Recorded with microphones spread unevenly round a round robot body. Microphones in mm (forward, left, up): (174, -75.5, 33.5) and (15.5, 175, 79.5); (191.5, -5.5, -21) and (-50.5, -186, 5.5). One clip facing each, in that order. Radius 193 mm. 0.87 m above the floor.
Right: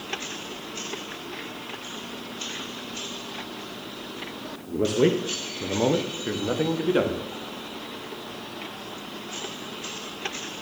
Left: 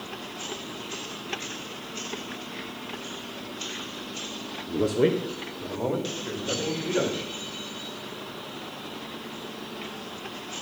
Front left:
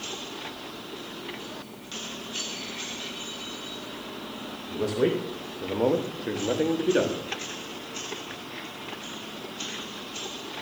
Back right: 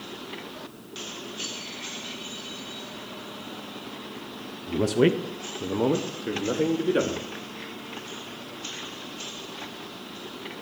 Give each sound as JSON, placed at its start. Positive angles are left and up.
{"t": 4.7, "sound": "a man speaking", "azimuth_deg": -150, "distance_m": 0.6}